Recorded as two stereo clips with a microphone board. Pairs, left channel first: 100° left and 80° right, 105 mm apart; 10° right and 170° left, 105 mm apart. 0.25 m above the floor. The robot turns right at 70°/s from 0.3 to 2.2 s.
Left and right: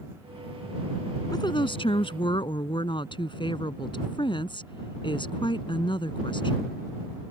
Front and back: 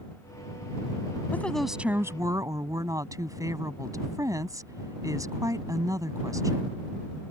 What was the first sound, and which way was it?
A woman speaking, 60° left.